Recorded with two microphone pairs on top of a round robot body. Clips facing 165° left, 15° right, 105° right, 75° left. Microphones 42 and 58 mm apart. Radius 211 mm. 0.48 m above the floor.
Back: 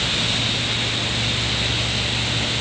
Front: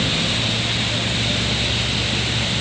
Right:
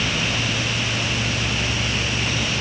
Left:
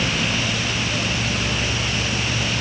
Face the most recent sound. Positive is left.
No sound to turn to.